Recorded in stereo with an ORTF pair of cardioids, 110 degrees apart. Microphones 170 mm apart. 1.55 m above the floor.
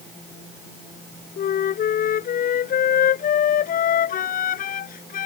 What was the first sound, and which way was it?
A flute, 55° left.